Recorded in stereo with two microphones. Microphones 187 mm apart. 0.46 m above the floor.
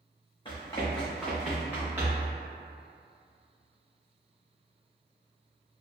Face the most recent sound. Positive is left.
turn(degrees=-15)  # may be behind; listen again after turning